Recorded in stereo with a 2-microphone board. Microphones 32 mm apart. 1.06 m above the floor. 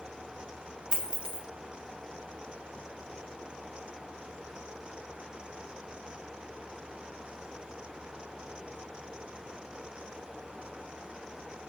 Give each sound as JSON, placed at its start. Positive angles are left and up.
{"t": 0.9, "sound": "a dropped coin", "side_deg": -20, "distance_m": 0.6}